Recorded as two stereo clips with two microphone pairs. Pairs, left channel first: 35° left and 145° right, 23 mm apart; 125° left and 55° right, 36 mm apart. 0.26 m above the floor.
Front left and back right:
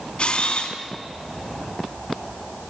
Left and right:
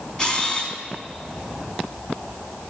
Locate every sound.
0.2 s a camera shutter: 55° left, 2.5 m